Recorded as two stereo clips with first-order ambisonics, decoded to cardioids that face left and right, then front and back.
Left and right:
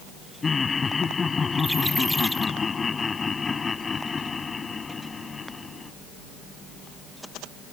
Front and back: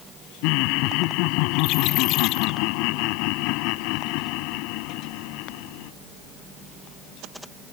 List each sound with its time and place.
0.4 s laughter: 15° left